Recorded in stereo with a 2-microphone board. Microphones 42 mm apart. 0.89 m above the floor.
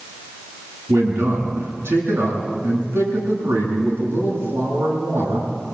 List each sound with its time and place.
0.9 s a man speaking: 80° right, 9.5 m